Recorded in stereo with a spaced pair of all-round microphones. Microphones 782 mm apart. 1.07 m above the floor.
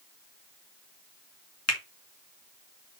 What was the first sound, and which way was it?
A finger snap, 20° left (ahead or behind).